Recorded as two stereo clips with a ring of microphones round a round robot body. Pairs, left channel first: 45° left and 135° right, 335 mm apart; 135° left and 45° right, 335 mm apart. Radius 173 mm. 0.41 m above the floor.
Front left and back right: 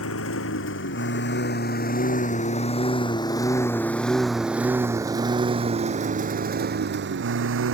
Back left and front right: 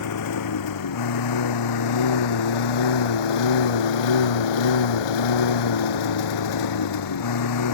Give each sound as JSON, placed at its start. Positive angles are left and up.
{"t": 0.0, "sound": "a lawn mower", "azimuth_deg": 95}